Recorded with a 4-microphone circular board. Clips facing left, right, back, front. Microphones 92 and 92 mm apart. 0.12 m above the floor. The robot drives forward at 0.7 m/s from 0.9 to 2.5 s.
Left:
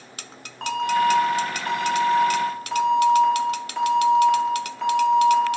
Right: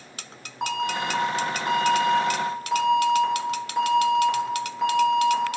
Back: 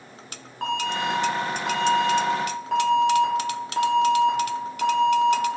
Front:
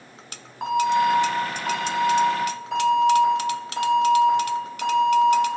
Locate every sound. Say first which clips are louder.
0.6 s an alarm: left 6 dB, front 6 dB; 55° right, 0.7 m; by 5.4 s 170° right, 1.2 m